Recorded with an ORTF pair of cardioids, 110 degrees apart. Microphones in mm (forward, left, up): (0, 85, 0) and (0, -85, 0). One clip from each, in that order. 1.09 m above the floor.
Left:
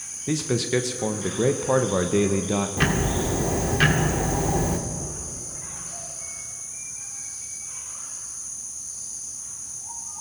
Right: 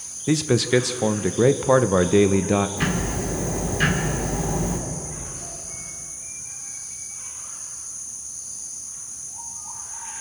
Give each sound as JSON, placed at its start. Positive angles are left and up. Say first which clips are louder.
{"t": 0.3, "sound": "a man speaking", "louder": "right 5 dB", "azimuth_deg": -20, "distance_m": 0.5}
{"t": 2.8, "sound": "ticking", "louder": "left 2 dB", "azimuth_deg": 30, "distance_m": 1.8}